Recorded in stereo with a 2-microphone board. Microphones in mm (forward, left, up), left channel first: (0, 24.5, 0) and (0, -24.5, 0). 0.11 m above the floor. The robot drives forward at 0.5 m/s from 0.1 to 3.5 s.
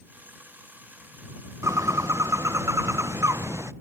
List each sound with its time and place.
1.6 s a bird: 80° right; by 3.7 s 70° right (ahead or behind)